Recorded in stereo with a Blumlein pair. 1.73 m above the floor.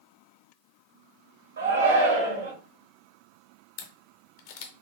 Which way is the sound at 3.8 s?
50° left.